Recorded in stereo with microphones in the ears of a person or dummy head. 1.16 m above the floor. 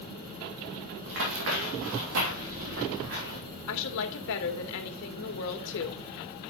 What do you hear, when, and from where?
1.1 s running footsteps: 60° right (ahead or behind), 2.5 m
3.7 s a woman speaking: 70° left (ahead or behind), 1.6 m